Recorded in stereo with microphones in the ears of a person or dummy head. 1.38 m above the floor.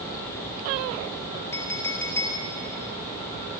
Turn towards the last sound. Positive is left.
turn(degrees=15)  # may be behind; listen again after turning